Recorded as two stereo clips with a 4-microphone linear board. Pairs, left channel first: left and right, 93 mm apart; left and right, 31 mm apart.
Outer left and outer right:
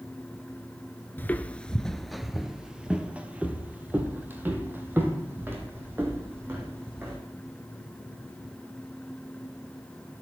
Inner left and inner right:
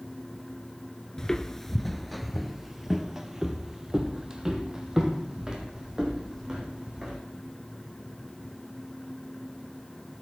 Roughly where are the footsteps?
Left.